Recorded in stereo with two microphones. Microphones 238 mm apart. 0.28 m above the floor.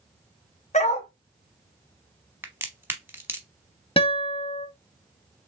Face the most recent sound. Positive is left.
turn(degrees=25)  # may be behind; listen again after turning